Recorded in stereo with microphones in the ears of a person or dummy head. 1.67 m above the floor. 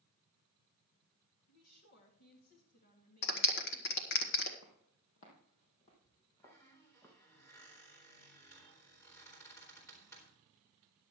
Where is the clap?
60° left (ahead or behind), 1.3 m.